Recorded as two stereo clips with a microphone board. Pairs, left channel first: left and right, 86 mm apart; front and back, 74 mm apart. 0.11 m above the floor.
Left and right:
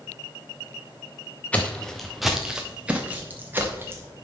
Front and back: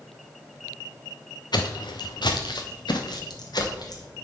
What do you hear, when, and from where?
1.5 s footsteps: 15° left, 1.1 m; by 4.1 s 25° right, 2.0 m